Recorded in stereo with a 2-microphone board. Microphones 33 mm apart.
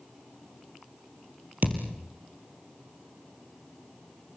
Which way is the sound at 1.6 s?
60° right (ahead or behind).